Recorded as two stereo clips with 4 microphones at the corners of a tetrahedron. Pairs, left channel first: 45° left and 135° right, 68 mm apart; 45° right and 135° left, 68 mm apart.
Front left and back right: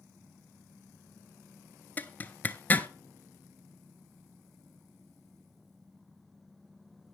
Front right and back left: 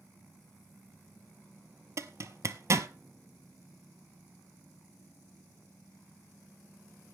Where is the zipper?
105° left, 0.7 m.